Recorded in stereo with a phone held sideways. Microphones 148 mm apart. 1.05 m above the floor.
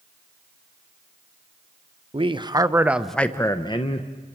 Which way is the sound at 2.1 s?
40° right (ahead or behind).